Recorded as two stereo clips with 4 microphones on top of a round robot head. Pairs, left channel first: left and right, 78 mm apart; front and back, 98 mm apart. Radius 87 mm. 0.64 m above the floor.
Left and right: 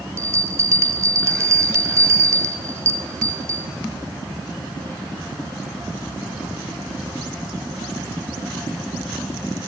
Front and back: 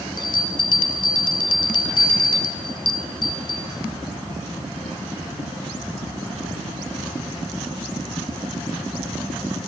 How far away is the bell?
About 2 m.